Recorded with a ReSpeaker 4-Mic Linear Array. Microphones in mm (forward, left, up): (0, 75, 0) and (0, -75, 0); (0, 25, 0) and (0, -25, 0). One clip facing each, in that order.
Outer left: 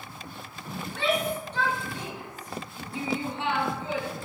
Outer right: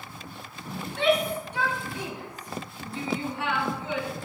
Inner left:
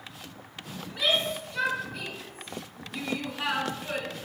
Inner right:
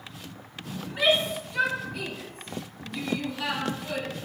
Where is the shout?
20° right (ahead or behind), 4 m; by 4.1 s 35° left (ahead or behind), 4 m.